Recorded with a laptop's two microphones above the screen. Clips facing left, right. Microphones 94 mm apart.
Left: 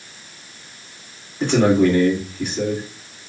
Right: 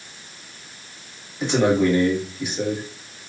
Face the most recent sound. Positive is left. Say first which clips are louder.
# left 3 dB
turn(degrees=60)  # may be behind; listen again after turning